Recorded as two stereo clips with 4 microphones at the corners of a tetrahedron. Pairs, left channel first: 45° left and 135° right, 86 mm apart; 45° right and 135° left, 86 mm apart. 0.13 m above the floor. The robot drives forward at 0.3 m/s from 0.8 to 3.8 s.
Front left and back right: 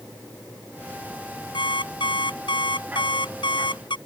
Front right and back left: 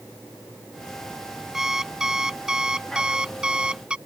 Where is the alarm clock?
50° left; by 4.0 s 55° left.